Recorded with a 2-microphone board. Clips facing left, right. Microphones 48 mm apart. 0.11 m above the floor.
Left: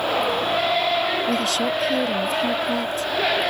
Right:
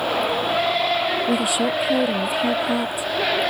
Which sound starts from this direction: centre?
A woman speaking, at 1.3 s.